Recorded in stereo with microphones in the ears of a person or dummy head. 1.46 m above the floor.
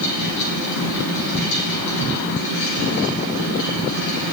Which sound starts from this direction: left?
A fan, at 0.0 s.